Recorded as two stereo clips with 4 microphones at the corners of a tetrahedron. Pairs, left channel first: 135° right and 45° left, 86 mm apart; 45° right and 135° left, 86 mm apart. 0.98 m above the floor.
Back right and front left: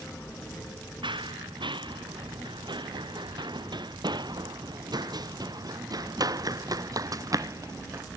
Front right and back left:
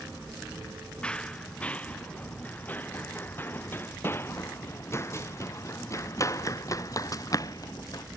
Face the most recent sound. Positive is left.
turn(degrees=-5)